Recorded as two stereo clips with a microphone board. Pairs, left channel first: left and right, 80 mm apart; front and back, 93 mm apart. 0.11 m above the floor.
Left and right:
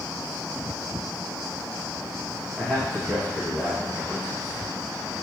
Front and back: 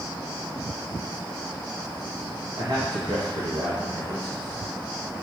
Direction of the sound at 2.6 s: 170° left.